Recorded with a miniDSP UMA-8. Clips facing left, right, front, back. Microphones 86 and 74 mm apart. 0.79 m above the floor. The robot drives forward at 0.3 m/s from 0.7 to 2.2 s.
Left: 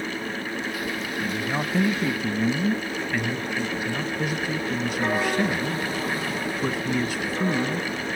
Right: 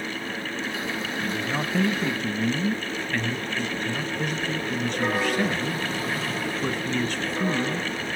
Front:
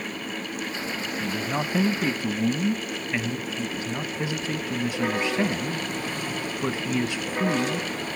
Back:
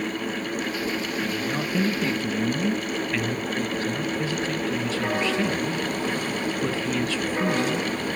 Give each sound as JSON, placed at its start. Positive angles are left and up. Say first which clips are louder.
{"t": 1.2, "sound": "a man speaking", "louder": "left 2 dB, back 1 dB", "azimuth_deg": 15, "distance_m": 1.1}